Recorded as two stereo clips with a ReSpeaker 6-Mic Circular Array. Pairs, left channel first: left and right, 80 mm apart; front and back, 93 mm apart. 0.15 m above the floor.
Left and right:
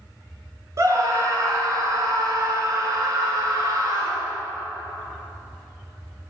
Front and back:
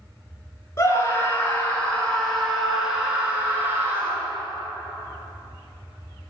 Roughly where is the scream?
Ahead right.